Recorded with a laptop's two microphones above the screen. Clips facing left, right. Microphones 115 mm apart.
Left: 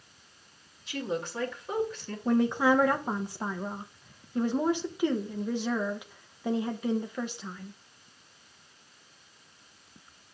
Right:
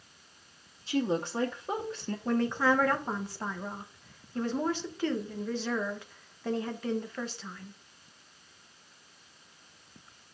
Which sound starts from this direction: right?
A woman speaking, at 0.9 s.